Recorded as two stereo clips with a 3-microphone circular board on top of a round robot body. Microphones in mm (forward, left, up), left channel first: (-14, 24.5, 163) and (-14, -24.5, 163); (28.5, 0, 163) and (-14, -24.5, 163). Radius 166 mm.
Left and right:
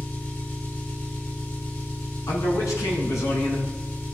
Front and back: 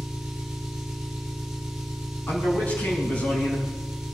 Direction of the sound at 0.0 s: 130° left.